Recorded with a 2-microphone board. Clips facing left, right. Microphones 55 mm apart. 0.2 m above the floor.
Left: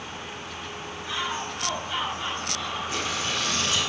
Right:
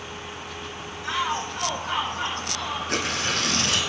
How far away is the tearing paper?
About 1.9 m.